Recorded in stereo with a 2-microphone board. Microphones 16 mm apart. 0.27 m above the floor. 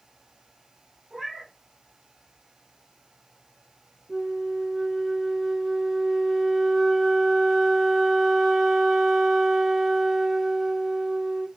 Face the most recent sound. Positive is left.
turn(degrees=-50)  # may be behind; listen again after turning